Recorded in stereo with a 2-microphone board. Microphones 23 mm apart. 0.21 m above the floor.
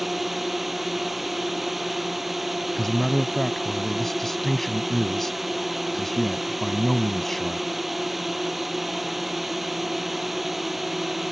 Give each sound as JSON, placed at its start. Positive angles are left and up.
{"t": 0.0, "sound": "a drone", "side_deg": -5}
{"t": 2.8, "sound": "a man speaking", "side_deg": 15}